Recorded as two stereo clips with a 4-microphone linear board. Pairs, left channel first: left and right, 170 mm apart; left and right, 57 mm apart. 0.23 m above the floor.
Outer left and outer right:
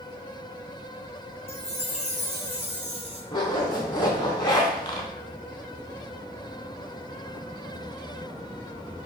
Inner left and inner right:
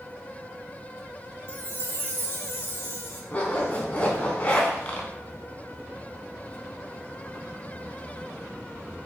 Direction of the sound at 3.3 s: 25° left (ahead or behind).